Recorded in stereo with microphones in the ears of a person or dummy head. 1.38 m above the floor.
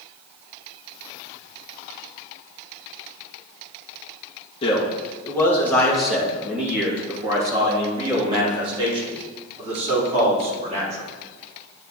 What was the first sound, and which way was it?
A man speaking, 35° left (ahead or behind).